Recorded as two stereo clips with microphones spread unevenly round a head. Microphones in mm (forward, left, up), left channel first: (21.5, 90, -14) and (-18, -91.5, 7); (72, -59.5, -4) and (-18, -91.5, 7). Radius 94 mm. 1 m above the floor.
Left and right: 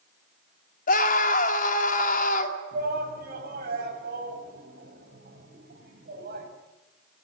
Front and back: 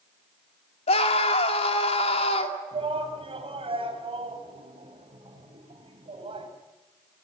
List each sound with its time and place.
0.9 s a scream: 30° left, 2.5 m
2.7 s a shout: 145° right, 5.5 m